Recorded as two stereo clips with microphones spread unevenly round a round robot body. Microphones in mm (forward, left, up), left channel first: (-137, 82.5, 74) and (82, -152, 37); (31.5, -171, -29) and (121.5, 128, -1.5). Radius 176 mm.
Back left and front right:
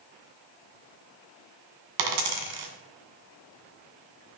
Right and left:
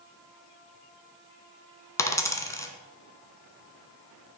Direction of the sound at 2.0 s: 25° right.